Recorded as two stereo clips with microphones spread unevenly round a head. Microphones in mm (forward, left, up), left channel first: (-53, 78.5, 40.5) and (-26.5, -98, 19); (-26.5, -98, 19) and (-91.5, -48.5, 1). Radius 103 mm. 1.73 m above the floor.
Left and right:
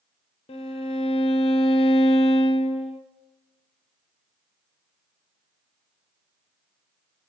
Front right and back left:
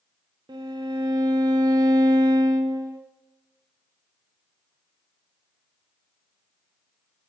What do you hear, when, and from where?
0.5 s a violin: 115° left, 0.5 m